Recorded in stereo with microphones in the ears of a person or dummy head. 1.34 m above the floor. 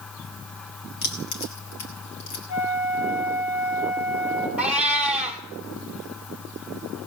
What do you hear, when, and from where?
1.0 s keys jangling: 35° left (ahead or behind), 1.1 m; by 2.4 s 50° left (ahead or behind), 2.5 m
2.5 s a flute: 80° left, 3 m
4.6 s a cat meowing: 5° right (ahead or behind), 1.2 m